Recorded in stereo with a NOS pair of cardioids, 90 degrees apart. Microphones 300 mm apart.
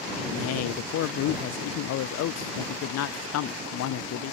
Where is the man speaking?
60° left.